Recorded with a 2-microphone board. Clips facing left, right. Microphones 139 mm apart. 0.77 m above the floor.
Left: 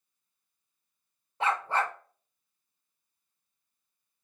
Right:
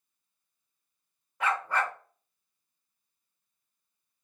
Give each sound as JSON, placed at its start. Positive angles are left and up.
{"t": 1.4, "sound": "a dog barking", "side_deg": 25, "distance_m": 0.8}